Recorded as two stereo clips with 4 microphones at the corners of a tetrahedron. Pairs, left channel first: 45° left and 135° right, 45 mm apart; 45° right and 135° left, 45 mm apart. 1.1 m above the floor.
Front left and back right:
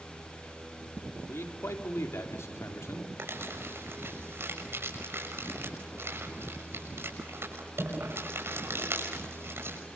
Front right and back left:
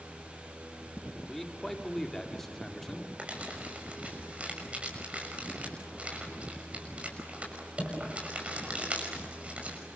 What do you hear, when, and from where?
1.3 s a man speaking: 40° left, 2.5 m
3.2 s crumpling: 160° right, 6 m